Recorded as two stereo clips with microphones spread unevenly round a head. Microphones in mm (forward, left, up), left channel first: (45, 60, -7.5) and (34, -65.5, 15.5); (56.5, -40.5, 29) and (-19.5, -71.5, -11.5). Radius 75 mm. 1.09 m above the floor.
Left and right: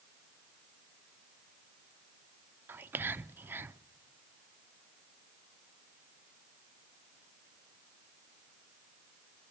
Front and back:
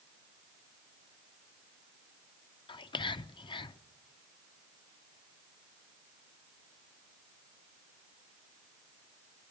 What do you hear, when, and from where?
2.7 s whispering: 15° right, 0.5 m